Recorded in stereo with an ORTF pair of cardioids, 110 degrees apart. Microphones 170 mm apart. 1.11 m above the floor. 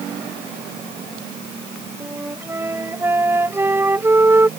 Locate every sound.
2.0 s a flute: 15° right